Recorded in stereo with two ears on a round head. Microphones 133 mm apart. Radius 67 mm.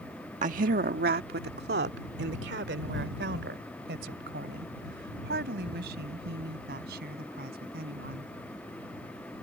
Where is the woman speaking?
55° right (ahead or behind); by 8.3 s 70° right (ahead or behind).